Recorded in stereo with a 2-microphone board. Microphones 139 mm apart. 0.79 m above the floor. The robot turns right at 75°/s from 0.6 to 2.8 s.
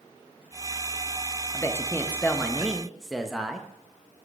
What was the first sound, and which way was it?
A man speaking, 20° left (ahead or behind).